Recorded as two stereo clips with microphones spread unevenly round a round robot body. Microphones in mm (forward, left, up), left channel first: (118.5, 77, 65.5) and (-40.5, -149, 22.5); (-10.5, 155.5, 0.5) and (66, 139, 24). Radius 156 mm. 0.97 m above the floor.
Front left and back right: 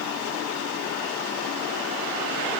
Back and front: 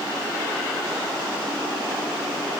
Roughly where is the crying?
I don't hear crying.